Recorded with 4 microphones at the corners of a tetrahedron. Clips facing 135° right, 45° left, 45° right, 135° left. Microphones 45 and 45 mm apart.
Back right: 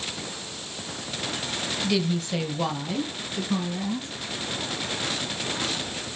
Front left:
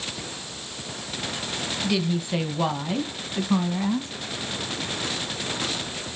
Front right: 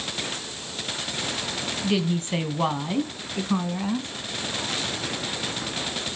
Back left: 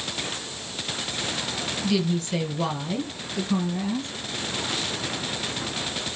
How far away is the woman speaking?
About 1.3 m.